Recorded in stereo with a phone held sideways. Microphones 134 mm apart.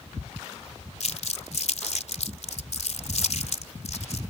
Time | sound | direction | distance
1.0 | crumpling | 65° left (ahead or behind) | ?